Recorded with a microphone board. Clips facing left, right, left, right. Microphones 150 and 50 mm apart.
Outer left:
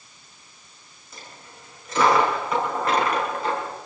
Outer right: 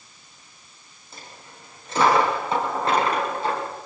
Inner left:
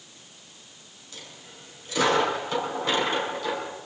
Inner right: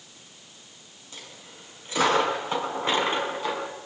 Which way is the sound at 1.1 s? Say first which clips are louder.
Even, even; 30° right (ahead or behind).